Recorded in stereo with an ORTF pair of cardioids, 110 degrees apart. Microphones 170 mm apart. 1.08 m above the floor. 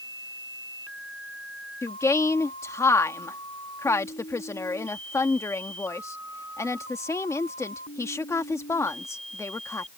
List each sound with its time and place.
1.8 s a woman speaking: 15° left